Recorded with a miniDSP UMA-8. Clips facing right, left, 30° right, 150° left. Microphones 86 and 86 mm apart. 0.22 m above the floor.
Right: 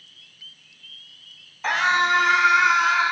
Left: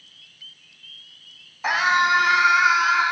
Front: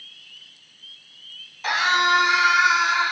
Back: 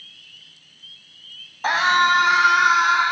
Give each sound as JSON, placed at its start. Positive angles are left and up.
{"t": 1.6, "sound": "a scream", "azimuth_deg": 165, "distance_m": 1.6}